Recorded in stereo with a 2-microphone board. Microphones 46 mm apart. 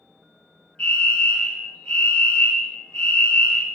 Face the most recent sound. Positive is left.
turn(degrees=25)  # may be behind; listen again after turning